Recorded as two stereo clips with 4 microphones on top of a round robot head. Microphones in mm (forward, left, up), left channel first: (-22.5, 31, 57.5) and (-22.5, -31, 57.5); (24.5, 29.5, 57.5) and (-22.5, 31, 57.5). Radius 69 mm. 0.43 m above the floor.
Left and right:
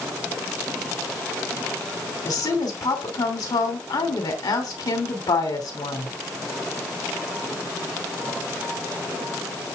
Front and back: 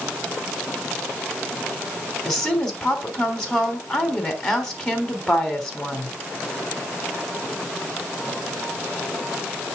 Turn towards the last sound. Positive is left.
turn(degrees=80)